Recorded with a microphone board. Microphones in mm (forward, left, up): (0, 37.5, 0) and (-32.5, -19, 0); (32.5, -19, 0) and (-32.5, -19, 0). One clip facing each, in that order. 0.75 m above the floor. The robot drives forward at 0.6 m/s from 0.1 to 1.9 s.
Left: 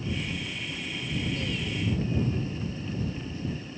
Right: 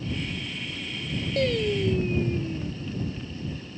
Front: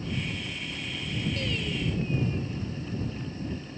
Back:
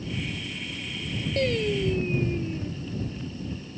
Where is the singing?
140° right; by 2.7 s 145° right.